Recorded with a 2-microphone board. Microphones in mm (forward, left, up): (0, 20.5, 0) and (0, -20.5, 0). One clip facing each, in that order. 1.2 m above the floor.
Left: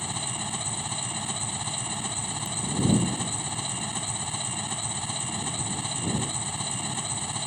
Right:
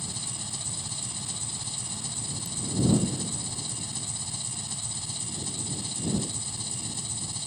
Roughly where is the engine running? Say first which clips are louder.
Left 6 dB; left.